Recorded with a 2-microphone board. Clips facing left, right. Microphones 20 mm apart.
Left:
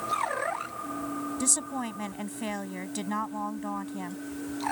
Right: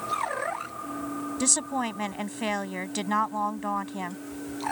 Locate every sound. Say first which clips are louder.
1.4 s a woman speaking: right 5 dB; 25° right (ahead or behind)